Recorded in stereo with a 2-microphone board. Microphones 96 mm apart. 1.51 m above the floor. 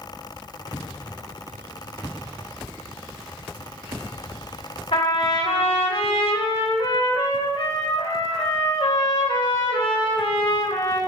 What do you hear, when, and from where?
4.9 s a trumpet: 70° left (ahead or behind), 2.5 m